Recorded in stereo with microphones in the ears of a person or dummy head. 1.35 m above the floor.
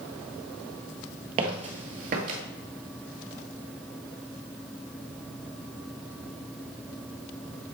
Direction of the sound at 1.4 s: 35° right (ahead or behind).